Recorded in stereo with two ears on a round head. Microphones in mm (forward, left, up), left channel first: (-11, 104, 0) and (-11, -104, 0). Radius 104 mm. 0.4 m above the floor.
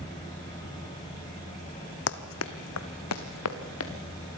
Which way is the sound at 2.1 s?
55° left (ahead or behind).